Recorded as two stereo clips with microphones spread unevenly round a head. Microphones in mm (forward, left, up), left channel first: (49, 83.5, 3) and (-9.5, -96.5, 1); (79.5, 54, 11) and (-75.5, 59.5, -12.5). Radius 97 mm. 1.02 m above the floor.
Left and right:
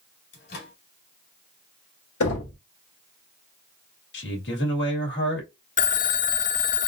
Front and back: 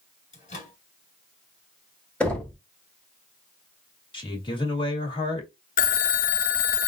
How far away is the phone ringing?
About 0.5 m.